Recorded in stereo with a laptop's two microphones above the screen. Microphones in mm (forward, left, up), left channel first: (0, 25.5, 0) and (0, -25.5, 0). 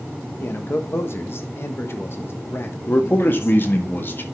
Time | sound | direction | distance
0.4 | a man speaking | 55° left (ahead or behind) | 1.3 m
2.9 | a man speaking | 45° left (ahead or behind) | 1.7 m